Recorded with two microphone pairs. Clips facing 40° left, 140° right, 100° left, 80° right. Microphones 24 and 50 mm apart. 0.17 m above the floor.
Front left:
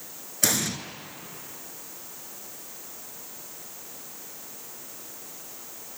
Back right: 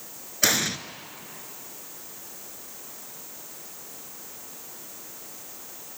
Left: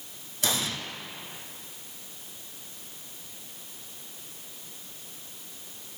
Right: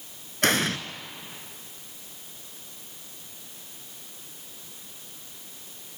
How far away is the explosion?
About 1.3 m.